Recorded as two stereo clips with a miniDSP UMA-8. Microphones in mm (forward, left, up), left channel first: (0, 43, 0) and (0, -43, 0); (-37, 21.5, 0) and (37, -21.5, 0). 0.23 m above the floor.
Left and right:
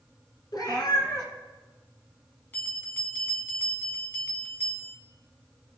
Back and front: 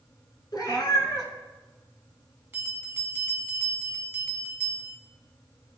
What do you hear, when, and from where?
0.5 s a cat meowing: 115° left, 1.3 m
2.5 s a bell: 25° left, 1.3 m